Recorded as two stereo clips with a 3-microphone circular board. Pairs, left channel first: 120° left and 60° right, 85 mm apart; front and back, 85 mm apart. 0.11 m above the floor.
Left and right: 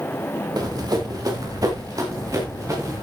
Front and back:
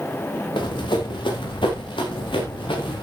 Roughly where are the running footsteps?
Ahead.